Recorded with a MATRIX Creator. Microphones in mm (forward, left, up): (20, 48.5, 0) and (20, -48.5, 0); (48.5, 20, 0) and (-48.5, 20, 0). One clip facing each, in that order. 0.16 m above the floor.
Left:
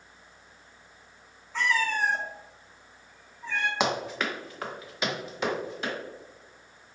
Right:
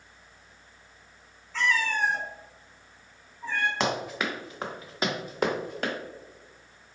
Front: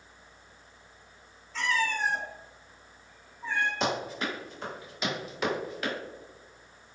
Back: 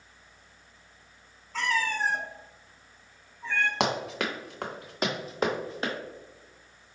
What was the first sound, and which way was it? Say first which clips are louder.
A cat meowing: even, back 1 dB; 165° left.